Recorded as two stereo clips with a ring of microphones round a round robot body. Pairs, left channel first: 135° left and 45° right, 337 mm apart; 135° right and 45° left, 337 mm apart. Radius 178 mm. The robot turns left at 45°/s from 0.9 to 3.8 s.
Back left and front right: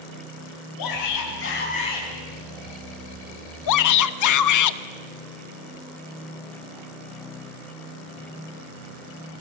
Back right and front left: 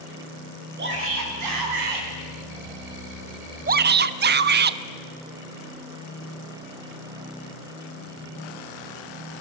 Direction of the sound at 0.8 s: 105° left.